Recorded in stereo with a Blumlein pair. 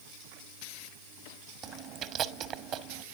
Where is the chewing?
35° right, 1.2 m.